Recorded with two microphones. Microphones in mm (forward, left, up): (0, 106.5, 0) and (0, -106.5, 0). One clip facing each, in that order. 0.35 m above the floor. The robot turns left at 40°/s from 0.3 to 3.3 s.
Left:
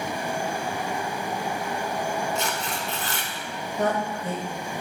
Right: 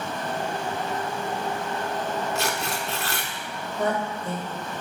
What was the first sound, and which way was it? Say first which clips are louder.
Tearing paper: right 1 dB; 75° right.